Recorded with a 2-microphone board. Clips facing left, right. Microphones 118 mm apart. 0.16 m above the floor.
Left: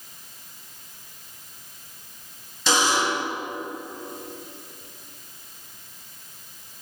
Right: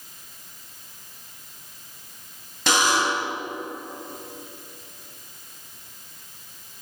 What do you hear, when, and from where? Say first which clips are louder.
2.7 s a buzzer: even; 60° right (ahead or behind), 3 m